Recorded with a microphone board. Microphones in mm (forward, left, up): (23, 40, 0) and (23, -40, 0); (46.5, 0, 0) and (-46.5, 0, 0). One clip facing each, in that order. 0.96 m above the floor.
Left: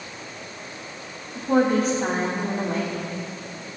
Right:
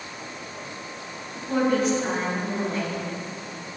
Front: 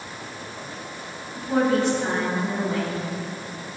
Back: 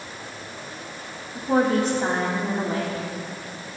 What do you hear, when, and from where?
1.4 s a woman speaking: 135° left, 3 m